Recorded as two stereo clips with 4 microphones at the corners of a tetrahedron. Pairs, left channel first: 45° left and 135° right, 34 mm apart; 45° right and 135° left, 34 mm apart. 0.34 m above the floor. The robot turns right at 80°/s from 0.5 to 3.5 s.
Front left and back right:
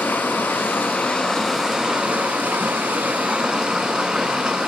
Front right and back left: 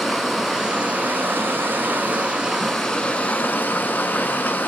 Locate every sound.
0.0 s running water: 50° left, 0.8 m; by 4.7 s 70° right, 0.8 m